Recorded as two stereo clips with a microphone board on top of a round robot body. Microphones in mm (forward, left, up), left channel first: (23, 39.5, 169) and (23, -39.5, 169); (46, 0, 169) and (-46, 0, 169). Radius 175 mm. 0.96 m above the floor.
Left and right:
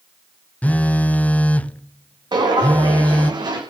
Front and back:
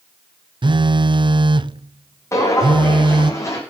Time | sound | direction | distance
0.6 | a phone buzzing | 160° left | 0.8 m
2.3 | footsteps | 60° right | 3.5 m